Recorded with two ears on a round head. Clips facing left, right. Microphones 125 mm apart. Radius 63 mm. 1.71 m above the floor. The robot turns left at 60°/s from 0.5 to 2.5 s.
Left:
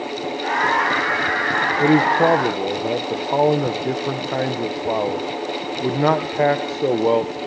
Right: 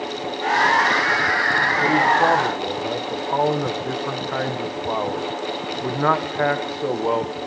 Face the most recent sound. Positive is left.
turn(degrees=30)